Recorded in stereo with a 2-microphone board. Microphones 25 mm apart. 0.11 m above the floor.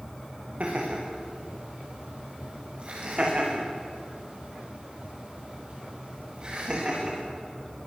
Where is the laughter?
55° right (ahead or behind), 9.5 m; by 7.2 s 35° right (ahead or behind), 14.5 m.